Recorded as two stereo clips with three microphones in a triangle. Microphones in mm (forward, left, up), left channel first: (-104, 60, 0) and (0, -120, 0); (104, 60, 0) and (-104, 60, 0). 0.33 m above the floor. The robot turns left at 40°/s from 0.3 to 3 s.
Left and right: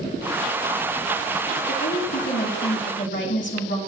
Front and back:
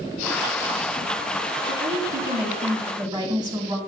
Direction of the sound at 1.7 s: 165° left.